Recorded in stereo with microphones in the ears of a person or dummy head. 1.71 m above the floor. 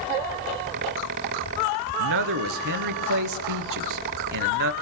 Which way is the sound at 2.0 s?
65° right (ahead or behind).